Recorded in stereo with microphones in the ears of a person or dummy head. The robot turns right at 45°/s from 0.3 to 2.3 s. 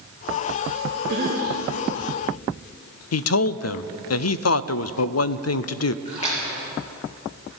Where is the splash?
30° left (ahead or behind), 5.5 m.